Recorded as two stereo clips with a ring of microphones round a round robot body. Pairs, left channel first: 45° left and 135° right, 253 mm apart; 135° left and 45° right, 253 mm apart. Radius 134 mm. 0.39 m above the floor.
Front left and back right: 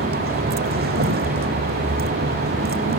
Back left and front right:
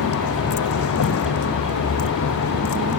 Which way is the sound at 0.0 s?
170° left.